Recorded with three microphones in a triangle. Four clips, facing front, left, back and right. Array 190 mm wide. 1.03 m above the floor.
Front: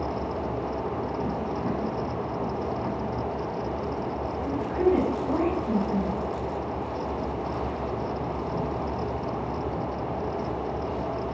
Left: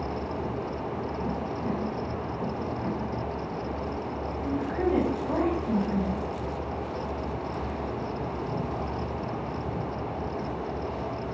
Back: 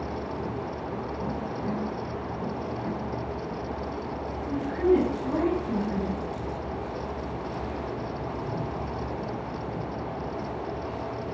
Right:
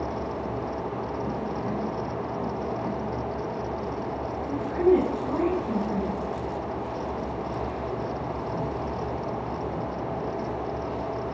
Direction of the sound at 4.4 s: 45° left.